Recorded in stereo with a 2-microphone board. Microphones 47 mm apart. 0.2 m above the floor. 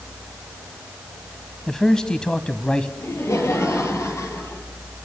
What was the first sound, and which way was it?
A man speaking, 10° left (ahead or behind).